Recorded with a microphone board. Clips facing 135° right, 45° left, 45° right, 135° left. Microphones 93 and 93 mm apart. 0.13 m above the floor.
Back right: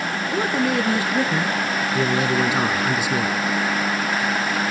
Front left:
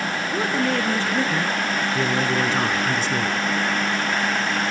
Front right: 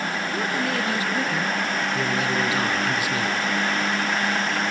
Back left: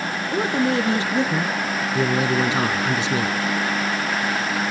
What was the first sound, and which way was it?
A man speaking, 155° left.